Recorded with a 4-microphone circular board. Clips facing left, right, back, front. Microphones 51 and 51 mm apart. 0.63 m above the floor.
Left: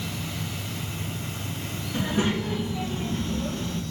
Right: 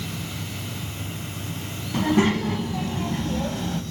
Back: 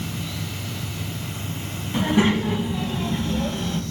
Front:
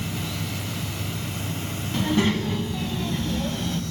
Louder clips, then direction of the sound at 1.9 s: Right 5 dB, back 3 dB; 105° right.